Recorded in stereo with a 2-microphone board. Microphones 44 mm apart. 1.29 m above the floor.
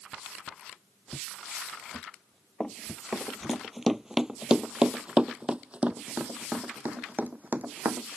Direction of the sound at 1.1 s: 25° left (ahead or behind).